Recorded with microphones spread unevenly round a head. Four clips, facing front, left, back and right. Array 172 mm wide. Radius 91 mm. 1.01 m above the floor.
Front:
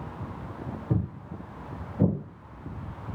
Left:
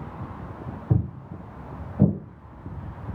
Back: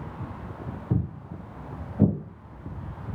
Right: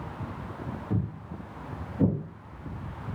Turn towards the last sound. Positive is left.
turn(degrees=170)